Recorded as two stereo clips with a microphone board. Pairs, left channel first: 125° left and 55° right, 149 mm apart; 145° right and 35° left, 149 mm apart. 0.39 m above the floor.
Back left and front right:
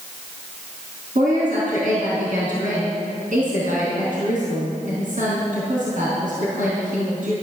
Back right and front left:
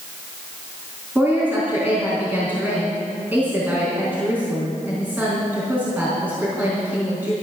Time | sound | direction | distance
1.1 | a woman speaking | 40° right | 4 m